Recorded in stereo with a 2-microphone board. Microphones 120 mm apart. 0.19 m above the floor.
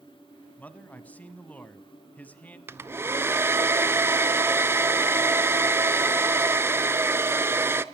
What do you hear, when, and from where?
0.6 s a man speaking: 15° left (ahead or behind), 1.0 m
2.7 s a hair dryer: 20° right (ahead or behind), 0.6 m